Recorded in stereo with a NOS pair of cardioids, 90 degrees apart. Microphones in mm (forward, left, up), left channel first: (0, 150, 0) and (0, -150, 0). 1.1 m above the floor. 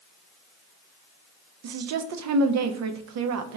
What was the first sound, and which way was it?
A woman speaking, 55° right.